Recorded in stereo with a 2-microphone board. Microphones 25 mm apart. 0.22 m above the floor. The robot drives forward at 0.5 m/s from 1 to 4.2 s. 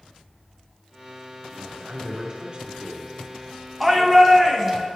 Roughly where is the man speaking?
Right.